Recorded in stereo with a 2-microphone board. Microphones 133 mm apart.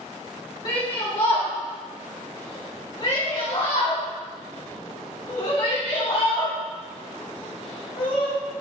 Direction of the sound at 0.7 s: 30° left (ahead or behind).